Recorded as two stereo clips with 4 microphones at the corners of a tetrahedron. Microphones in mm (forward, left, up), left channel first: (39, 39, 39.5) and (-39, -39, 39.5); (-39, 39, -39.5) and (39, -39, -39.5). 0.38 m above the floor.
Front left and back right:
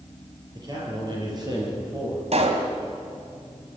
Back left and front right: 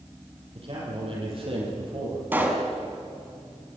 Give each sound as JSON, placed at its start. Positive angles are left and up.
{"t": 0.6, "sound": "a man speaking", "azimuth_deg": -80, "distance_m": 9.0}
{"t": 2.3, "sound": "a pop", "azimuth_deg": -120, "distance_m": 2.5}